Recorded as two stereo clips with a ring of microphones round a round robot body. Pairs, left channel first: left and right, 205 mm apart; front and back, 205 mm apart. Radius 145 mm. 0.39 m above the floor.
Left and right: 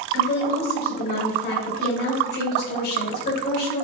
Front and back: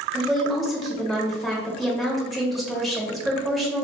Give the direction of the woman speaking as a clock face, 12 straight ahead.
9 o'clock.